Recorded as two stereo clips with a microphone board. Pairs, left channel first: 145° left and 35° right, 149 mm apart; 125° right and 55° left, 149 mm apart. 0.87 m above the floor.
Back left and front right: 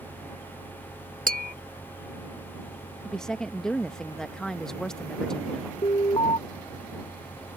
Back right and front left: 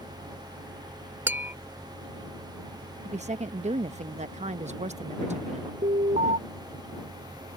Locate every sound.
1.3 s tapping: 20° right
3.0 s a woman speaking: 60° left
5.8 s an alarm: 90° left